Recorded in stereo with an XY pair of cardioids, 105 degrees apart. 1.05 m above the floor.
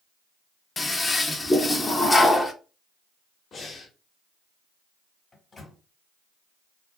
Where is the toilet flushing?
25° left, 0.6 m.